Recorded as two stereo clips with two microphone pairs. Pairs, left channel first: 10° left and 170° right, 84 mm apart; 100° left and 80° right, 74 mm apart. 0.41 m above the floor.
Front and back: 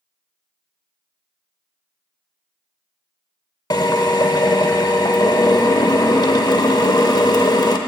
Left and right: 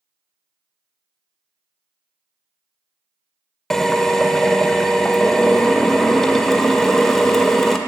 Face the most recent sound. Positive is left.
turn(degrees=20)